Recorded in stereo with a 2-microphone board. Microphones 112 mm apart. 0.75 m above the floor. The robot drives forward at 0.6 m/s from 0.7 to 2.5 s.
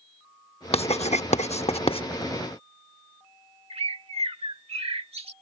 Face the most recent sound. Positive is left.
turn(degrees=-60)  # may be behind; listen again after turning